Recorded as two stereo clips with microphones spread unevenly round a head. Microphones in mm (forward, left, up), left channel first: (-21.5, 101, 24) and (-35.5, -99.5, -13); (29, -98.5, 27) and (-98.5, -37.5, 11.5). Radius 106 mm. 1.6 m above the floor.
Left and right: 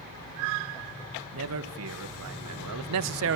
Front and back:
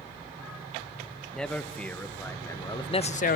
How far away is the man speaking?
About 2 m.